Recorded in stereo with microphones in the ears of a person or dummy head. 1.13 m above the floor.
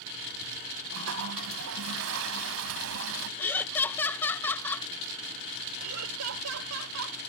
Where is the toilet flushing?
70° right (ahead or behind).